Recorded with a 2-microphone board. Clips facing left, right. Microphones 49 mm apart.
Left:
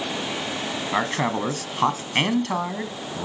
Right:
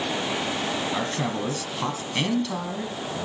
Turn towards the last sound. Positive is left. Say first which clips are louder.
# left 4 dB
turn(degrees=45)  # may be behind; listen again after turning